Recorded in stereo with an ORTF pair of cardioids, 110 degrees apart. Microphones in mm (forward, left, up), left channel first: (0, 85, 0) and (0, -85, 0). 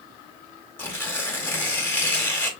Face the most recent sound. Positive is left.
turn(degrees=15)